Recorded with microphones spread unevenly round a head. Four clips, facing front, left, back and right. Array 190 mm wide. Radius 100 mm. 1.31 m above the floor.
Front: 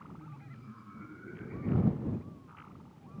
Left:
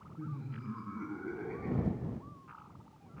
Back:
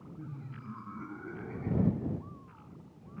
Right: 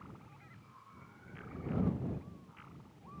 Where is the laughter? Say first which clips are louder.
Left 14 dB, back 5 dB; 100° left; by 2.3 s 95° left.